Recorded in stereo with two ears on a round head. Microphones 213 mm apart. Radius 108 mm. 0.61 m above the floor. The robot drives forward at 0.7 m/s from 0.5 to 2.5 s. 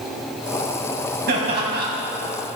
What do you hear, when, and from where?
1.3 s laughter: 45° right (ahead or behind), 5 m; by 1.9 s 40° right (ahead or behind), 5 m